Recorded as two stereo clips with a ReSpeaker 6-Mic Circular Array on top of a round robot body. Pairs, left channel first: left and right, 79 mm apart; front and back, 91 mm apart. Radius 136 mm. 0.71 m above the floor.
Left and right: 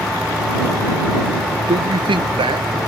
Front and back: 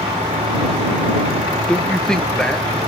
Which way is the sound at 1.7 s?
80° right.